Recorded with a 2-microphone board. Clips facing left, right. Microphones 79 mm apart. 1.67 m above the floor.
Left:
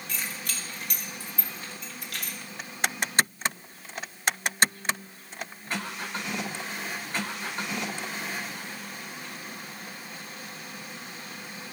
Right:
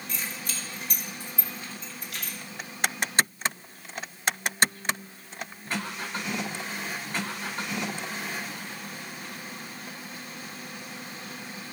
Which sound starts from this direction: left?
Keys jangling, at 0.1 s.